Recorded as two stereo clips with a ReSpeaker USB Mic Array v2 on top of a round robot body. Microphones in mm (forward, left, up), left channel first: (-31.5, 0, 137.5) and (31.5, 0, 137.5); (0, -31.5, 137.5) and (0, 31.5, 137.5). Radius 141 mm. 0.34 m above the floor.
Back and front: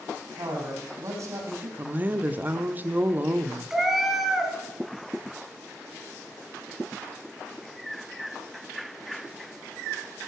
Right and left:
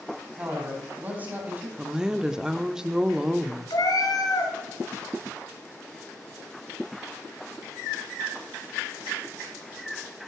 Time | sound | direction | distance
0.4 | a man speaking | 20° left | 4 m
1.8 | a woman speaking | 20° left | 0.9 m
3.7 | a cat meowing | 85° right | 2 m